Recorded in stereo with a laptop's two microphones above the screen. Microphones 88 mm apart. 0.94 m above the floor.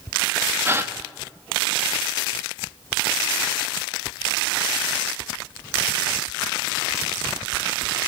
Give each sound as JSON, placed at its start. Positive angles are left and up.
{"t": 0.7, "sound": "a gasp", "side_deg": -25, "distance_m": 1.1}